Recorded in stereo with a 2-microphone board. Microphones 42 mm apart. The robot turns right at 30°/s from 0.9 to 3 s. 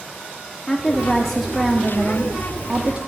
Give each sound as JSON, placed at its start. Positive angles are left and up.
{"t": 0.7, "sound": "a woman speaking", "azimuth_deg": 160, "distance_m": 0.9}